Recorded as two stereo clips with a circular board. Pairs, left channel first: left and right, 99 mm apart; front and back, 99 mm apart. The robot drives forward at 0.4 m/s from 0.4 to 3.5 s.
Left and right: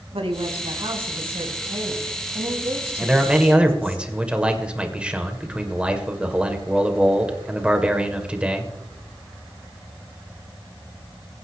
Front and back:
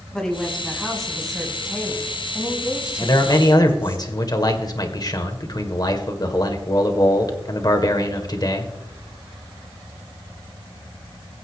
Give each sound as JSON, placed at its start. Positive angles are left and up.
{"t": 0.1, "sound": "a woman speaking", "azimuth_deg": -85, "distance_m": 3.5}
{"t": 3.0, "sound": "a man speaking", "azimuth_deg": -15, "distance_m": 2.0}